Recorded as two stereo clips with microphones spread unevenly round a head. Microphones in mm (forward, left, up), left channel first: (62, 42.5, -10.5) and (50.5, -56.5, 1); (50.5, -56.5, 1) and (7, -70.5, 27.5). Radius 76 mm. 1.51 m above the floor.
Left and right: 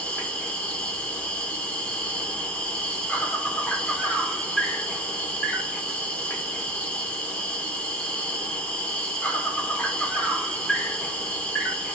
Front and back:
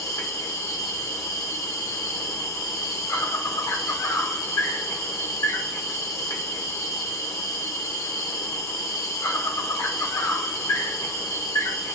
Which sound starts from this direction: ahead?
An insect, at 0.0 s.